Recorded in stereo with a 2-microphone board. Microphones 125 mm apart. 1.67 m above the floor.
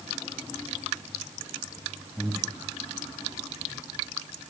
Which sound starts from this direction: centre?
Breathing, at 2.2 s.